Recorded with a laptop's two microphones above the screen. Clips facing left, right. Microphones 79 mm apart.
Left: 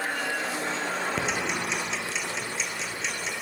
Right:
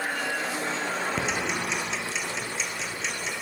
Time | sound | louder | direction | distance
1.2 | ticking | even | centre (ahead or behind) | 3 m